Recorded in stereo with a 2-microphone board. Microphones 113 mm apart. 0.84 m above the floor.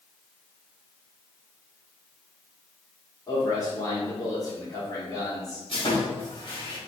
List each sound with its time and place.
3.3 s a man speaking: 35° left (ahead or behind), 2 m
5.7 s sawing: 50° left (ahead or behind), 1.5 m